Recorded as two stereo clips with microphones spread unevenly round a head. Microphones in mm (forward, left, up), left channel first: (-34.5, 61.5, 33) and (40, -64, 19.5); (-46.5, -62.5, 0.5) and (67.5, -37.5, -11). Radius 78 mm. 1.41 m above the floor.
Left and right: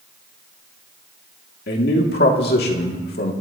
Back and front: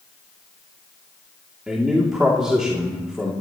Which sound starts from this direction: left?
A man speaking, at 1.7 s.